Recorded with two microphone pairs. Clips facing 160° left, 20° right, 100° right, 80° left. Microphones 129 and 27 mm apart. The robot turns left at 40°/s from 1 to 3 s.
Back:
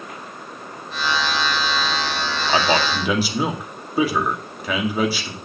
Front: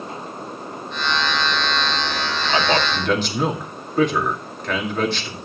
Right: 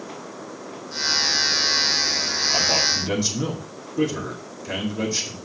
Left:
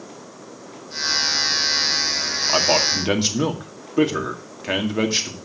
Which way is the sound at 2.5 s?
100° left.